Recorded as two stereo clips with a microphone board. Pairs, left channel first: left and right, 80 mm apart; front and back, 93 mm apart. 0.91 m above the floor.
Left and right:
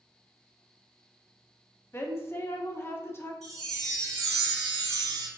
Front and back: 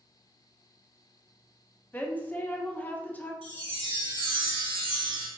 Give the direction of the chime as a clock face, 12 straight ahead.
6 o'clock.